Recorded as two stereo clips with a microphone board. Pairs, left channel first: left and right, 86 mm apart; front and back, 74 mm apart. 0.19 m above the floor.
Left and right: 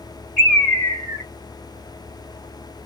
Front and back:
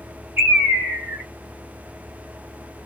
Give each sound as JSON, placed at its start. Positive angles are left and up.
{"t": 0.4, "sound": "a bird", "azimuth_deg": 160, "distance_m": 1.7}